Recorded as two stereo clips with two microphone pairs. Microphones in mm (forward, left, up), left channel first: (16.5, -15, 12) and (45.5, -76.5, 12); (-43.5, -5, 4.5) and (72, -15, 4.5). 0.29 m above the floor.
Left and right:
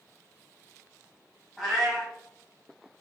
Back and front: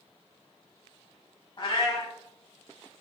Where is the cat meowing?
145° right, 0.9 m.